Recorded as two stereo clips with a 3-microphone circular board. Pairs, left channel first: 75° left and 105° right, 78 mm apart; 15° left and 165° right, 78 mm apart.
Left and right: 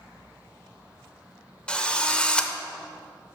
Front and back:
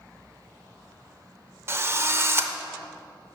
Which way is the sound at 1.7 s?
150° left.